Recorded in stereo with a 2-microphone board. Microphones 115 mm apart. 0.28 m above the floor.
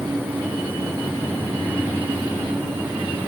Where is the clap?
No clap in this recording.